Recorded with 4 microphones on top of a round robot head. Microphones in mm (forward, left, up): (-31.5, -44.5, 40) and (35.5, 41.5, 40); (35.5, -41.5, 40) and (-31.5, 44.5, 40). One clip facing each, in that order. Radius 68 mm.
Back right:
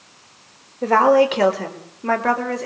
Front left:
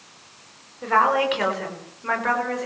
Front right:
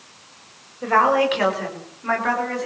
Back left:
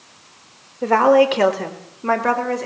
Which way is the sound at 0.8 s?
Straight behind.